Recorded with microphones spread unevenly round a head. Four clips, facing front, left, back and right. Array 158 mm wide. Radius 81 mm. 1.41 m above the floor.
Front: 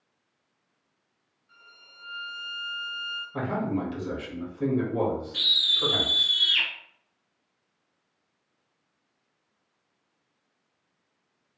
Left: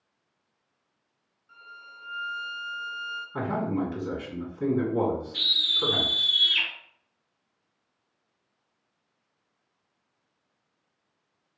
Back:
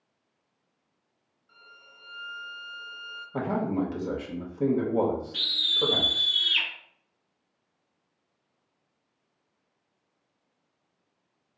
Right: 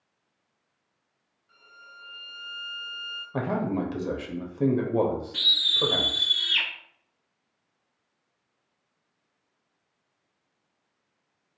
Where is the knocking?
No knocking in this recording.